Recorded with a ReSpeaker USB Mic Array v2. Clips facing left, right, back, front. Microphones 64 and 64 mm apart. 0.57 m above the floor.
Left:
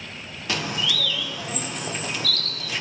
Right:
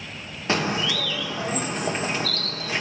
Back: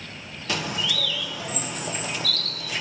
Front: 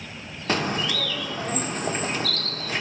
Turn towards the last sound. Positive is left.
turn(degrees=-40)